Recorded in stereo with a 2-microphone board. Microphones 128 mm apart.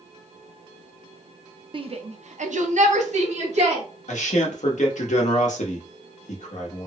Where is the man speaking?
70° left (ahead or behind), 0.9 m.